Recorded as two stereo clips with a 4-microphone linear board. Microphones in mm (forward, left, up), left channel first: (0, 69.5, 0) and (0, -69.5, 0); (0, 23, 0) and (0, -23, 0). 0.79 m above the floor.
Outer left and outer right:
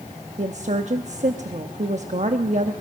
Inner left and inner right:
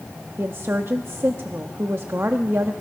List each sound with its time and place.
0.4 s a woman speaking: 60° right (ahead or behind), 0.9 m